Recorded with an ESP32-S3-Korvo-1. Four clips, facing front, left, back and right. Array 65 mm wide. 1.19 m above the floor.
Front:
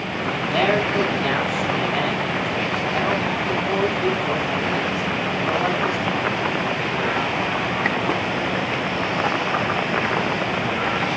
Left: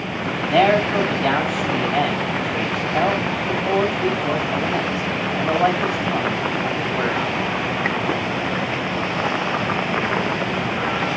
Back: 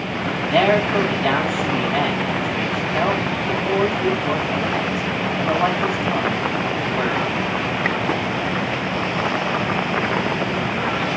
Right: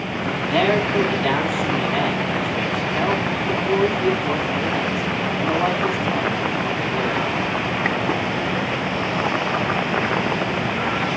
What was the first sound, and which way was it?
A man speaking, 110° left.